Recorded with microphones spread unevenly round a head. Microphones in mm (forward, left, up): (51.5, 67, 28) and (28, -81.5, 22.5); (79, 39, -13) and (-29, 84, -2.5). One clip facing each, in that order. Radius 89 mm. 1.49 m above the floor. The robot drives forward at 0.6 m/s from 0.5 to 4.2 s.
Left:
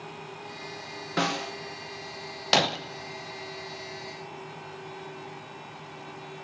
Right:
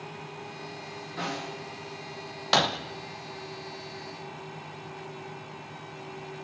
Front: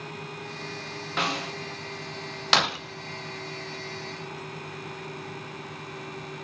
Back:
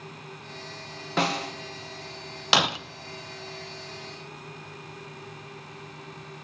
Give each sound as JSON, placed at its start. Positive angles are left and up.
{"t": 1.2, "sound": "a snare drum", "azimuth_deg": 110, "distance_m": 1.7}
{"t": 2.5, "sound": "breaking glass", "azimuth_deg": 115, "distance_m": 0.6}